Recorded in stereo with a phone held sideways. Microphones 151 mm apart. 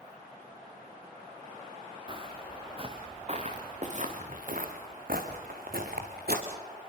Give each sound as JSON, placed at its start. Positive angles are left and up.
{"t": 2.1, "sound": "footsteps", "side_deg": -30, "distance_m": 5.5}